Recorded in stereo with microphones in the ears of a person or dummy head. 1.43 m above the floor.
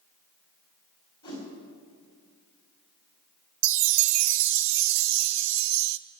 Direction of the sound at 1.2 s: 25° left (ahead or behind).